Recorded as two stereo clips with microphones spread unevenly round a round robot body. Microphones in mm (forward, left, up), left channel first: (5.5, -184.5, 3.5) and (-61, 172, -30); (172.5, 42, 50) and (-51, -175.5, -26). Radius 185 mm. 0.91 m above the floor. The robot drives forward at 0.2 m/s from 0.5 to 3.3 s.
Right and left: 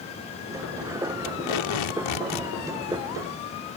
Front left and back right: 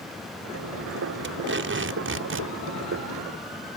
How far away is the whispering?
I don't hear whispering.